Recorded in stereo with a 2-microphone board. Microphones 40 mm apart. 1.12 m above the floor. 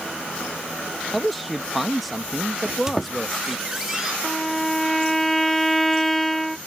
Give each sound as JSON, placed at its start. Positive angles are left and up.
{"t": 1.1, "sound": "a man speaking", "side_deg": 0}
{"t": 2.6, "sound": "a squeak", "side_deg": -15}
{"t": 4.2, "sound": "a violin", "side_deg": 5}